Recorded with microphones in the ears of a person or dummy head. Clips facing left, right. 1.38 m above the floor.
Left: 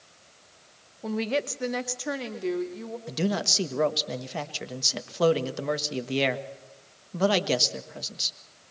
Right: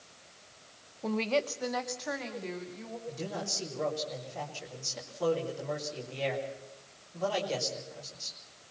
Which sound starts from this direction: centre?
A woman speaking, at 1.0 s.